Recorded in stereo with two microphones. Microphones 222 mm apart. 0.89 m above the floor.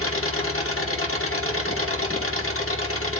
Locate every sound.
0.0 s an engine running: 75° left (ahead or behind), 2 m